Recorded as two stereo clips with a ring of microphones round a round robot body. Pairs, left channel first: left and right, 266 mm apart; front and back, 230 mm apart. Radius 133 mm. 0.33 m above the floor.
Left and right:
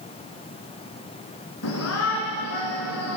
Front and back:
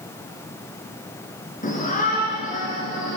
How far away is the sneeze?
No sneeze in this recording.